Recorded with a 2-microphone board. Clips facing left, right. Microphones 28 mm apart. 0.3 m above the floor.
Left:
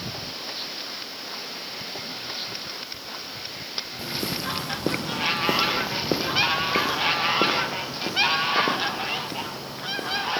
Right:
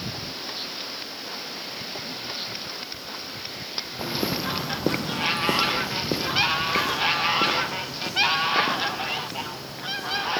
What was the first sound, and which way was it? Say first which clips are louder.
Footsteps: right 3 dB; 35° right (ahead or behind).